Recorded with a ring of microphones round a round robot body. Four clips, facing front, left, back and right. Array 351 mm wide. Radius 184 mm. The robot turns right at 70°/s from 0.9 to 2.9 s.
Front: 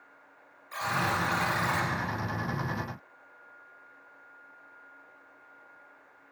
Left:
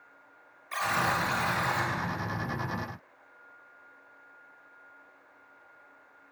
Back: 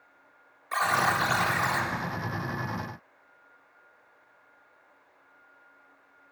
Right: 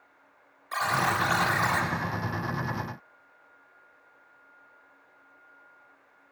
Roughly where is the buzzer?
Behind.